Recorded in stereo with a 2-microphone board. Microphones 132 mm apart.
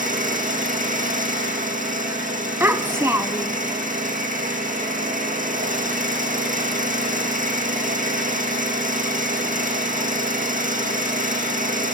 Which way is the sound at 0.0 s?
80° right.